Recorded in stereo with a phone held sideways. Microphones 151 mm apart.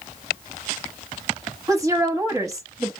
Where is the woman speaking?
20° right (ahead or behind), 1.3 m.